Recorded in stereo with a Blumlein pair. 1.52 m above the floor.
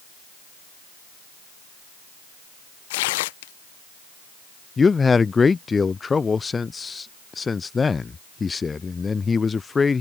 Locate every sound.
2.9 s tearing paper: 50° left
4.8 s a man speaking: 15° left